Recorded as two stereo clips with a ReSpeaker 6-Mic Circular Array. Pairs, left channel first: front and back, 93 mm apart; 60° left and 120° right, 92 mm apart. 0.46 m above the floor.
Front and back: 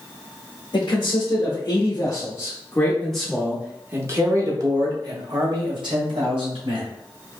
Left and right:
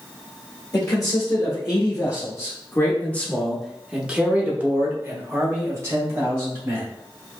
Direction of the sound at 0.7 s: 20° left.